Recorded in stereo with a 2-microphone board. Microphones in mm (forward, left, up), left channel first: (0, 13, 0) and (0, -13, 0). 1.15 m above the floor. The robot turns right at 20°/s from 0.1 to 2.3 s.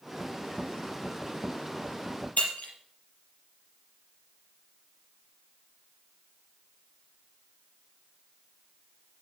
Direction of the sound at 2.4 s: 75° left (ahead or behind).